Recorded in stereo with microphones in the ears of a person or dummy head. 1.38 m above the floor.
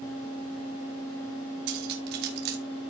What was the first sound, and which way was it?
Cutlery clinking, 60° right (ahead or behind).